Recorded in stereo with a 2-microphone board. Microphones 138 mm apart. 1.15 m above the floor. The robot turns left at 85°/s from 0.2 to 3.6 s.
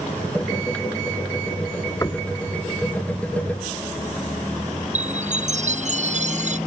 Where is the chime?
55° right (ahead or behind).